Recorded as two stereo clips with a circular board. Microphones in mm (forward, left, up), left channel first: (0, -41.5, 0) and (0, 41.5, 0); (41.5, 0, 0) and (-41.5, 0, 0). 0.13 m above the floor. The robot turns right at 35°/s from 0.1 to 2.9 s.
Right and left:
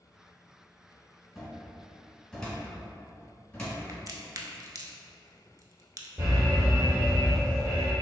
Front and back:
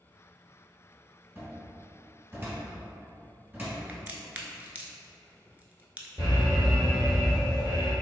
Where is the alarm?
35° left, 2.0 m.